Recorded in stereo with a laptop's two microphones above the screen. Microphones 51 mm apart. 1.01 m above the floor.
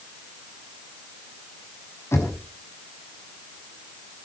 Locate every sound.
2.1 s knocking: 55° left (ahead or behind), 5.5 m